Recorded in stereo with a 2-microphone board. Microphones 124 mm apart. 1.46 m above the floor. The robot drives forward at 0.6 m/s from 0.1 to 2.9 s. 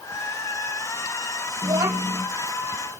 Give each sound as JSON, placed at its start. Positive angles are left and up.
{"t": 1.6, "sound": "a child speaking", "side_deg": -35, "distance_m": 1.0}